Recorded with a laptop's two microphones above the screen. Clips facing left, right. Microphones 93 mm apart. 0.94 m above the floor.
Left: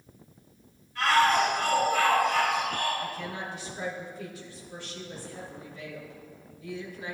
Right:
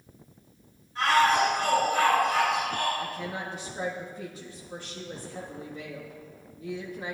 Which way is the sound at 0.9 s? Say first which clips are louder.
Right 1 dB; 30° right (ahead or behind).